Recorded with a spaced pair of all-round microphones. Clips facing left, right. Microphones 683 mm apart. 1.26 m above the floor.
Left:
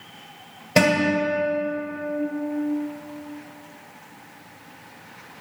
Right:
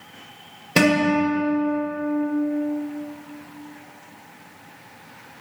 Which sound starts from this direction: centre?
A guitar, at 0.8 s.